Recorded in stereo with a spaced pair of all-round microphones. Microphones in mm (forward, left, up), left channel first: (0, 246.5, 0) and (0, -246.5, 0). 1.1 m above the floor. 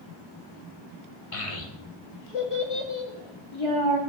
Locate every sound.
1.3 s a child speaking: 80° left, 1.2 m; by 4.0 s 60° left (ahead or behind), 3 m